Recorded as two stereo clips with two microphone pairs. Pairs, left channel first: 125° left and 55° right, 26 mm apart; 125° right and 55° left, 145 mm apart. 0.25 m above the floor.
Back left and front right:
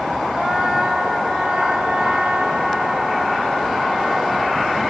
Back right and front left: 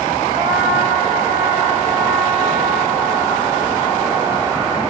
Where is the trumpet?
45° right, 1.3 m.